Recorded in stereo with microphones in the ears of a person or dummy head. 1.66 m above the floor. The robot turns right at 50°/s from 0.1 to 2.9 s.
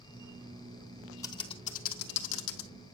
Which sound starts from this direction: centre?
Typing on a keyboard, at 1.2 s.